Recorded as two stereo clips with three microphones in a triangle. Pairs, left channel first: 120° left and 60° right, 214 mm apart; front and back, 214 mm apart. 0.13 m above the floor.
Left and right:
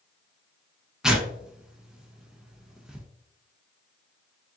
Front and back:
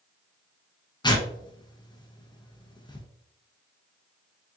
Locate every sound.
1.0 s tearing paper: 25° left, 0.8 m